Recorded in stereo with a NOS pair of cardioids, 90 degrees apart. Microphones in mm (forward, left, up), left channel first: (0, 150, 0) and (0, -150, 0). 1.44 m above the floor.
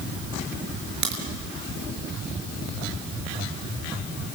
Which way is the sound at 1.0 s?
70° right.